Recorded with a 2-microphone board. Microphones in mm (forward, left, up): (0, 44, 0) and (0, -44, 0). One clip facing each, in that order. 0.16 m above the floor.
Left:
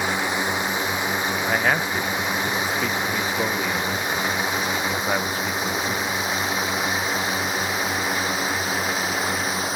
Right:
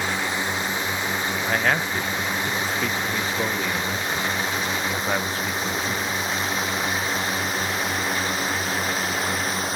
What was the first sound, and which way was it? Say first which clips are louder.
A drone: left 2 dB; 15° left (ahead or behind).